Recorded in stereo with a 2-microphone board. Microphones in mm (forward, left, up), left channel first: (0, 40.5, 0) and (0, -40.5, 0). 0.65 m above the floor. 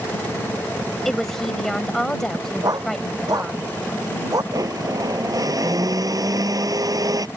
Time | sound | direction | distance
1.1 | a woman speaking | 5° left (ahead or behind) | ?
2.6 | a dog barking | 50° right (ahead or behind) | ?
4.5 | a blender | 50° right (ahead or behind) | ?